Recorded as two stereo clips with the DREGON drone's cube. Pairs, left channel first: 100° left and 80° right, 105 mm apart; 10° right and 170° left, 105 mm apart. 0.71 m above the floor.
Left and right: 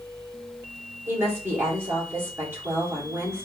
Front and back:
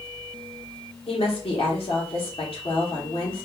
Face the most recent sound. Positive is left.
turn(degrees=-15)